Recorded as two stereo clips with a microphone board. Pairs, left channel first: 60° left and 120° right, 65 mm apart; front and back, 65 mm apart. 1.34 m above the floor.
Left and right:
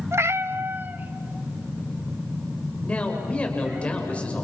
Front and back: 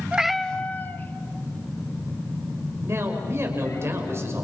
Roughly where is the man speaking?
Behind left.